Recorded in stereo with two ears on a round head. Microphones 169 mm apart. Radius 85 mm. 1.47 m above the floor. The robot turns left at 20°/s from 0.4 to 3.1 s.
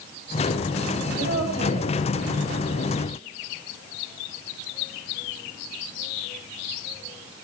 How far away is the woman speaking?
About 6.5 m.